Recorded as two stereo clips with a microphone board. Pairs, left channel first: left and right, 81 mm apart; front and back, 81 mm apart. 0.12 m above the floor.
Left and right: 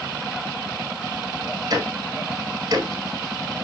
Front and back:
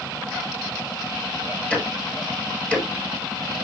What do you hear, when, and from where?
1.7 s ticking: 70° right, 1.3 m